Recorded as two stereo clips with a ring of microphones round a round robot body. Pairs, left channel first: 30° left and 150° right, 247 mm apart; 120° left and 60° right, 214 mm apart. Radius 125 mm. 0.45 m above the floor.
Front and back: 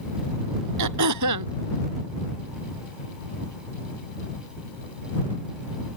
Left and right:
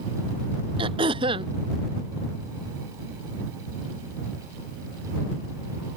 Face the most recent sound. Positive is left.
turn(degrees=-130)